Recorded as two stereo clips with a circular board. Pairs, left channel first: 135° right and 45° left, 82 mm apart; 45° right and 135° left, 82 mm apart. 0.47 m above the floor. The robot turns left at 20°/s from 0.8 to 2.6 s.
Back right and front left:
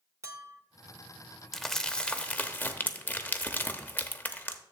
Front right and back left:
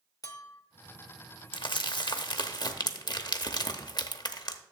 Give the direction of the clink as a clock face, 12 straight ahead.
12 o'clock.